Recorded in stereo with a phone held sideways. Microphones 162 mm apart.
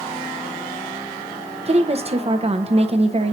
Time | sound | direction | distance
1.7 | a woman speaking | 40° right (ahead or behind) | 0.9 m